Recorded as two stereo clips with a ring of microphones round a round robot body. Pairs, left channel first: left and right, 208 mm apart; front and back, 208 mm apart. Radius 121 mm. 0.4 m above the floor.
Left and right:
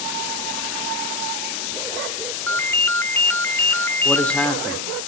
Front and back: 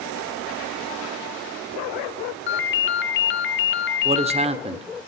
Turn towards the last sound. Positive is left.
turn(degrees=170)